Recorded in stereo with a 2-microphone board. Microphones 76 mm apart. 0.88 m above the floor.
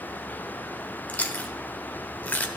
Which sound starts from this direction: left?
Chewing, at 1.1 s.